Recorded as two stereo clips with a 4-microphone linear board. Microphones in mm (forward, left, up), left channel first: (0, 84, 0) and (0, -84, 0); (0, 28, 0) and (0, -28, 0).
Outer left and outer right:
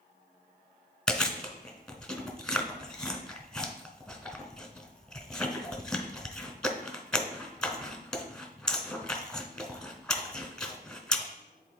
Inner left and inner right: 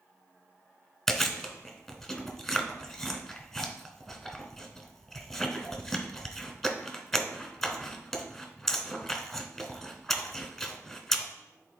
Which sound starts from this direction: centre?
Chewing, at 1.1 s.